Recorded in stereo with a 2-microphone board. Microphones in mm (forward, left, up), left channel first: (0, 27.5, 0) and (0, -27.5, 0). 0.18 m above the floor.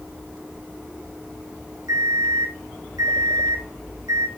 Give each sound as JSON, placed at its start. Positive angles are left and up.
{"t": 1.9, "sound": "an alarm clock", "side_deg": -75, "distance_m": 3.5}